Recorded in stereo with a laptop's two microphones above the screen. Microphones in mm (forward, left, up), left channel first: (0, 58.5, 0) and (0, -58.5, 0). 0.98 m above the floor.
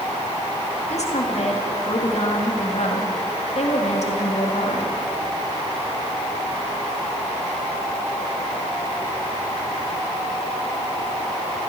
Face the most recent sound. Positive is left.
turn(degrees=70)  # may be behind; listen again after turning